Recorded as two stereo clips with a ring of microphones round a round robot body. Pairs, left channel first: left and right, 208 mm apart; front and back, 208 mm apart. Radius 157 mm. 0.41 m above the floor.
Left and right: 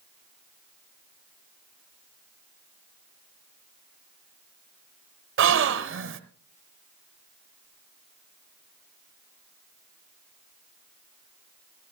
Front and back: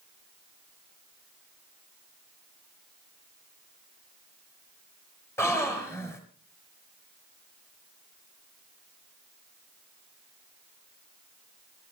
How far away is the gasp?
About 1.2 m.